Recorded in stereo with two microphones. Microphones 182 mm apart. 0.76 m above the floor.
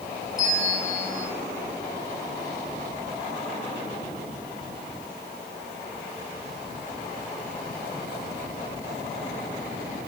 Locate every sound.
0.4 s a bell: 20° left (ahead or behind), 6 m